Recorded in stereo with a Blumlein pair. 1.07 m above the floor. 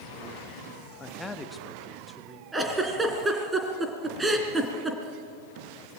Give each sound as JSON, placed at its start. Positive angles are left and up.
{"t": 1.0, "sound": "a man speaking", "azimuth_deg": 15, "distance_m": 1.1}
{"t": 2.5, "sound": "a giggle", "azimuth_deg": -10, "distance_m": 3.0}